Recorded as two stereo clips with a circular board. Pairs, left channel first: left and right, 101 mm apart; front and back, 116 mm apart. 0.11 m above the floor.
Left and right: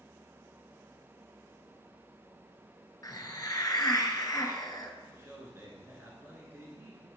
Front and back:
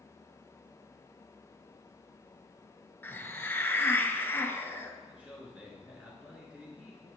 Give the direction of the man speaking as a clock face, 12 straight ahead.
4 o'clock.